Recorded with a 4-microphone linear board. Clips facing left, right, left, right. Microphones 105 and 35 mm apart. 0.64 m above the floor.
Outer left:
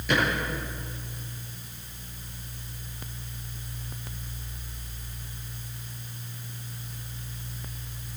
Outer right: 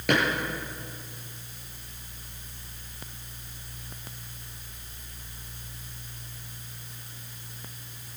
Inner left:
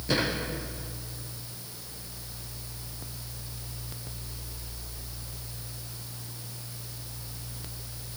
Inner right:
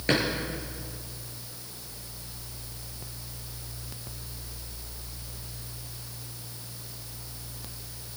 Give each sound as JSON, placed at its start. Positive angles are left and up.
{"t": 0.1, "sound": "a drawer", "side_deg": -65, "distance_m": 6.0}